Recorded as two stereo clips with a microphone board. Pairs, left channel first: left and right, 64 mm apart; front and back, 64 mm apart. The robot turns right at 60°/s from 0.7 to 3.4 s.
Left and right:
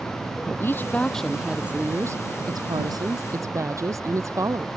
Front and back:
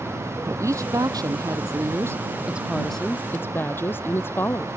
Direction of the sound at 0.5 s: 145° left.